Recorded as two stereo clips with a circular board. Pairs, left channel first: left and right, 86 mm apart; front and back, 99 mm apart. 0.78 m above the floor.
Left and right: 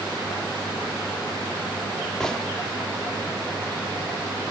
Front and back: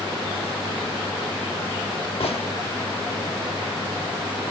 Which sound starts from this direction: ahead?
A gunshot, at 2.2 s.